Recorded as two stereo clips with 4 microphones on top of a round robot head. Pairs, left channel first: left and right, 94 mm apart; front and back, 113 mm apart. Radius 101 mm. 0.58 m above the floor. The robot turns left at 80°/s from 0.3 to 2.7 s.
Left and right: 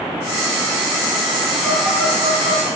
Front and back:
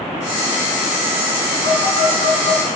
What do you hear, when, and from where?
1.6 s a phone buzzing: straight ahead, 3.5 m; by 2.7 s 85° right, 3.5 m